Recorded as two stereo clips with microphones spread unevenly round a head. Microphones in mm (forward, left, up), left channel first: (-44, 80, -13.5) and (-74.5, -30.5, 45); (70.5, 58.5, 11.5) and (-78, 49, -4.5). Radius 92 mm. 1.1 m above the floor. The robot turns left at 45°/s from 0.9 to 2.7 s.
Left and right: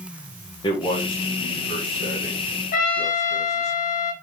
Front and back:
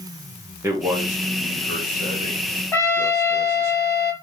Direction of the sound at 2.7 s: 65° left.